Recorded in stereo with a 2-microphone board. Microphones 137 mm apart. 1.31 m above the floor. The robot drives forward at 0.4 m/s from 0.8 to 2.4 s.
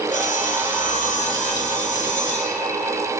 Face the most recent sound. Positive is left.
turn(degrees=65)  # may be behind; listen again after turning